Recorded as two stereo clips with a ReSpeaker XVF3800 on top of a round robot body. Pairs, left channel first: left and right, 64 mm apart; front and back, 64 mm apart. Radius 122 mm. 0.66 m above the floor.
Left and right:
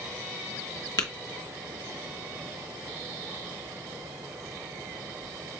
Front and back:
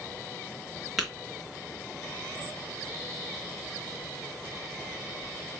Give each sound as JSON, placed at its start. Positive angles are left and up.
{"t": 1.0, "sound": "tapping", "azimuth_deg": 90, "distance_m": 0.9}